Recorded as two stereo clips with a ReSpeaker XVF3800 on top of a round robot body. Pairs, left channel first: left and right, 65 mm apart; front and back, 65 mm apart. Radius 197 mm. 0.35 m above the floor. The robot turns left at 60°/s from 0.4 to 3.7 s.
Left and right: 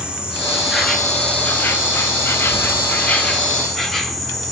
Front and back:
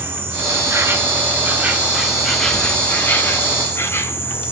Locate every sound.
0.0 s an insect: 155° right, 1.6 m; by 4.5 s 5° left, 1.6 m